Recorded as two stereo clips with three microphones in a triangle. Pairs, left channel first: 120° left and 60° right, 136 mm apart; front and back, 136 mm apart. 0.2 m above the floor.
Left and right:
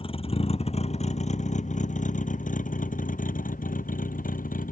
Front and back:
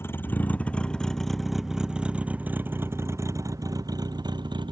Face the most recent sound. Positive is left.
turn(degrees=125)